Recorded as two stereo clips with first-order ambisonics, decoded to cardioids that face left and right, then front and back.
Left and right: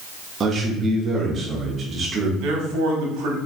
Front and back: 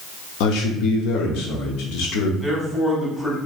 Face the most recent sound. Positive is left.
turn(degrees=-80)